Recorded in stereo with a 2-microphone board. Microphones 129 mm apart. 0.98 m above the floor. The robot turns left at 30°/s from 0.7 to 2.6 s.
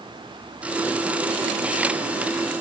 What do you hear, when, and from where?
Only background noise.